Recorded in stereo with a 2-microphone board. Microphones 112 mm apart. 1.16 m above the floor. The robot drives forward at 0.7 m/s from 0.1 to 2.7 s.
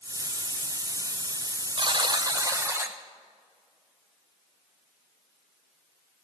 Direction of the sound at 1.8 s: 45° right (ahead or behind).